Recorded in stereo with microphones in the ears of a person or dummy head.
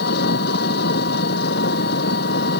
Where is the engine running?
65° left (ahead or behind).